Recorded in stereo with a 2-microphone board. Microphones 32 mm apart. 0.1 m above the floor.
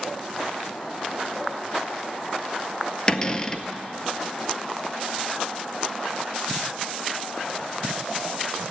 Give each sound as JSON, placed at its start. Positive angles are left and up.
{"t": 3.1, "sound": "a cupboard door", "side_deg": 25, "distance_m": 0.6}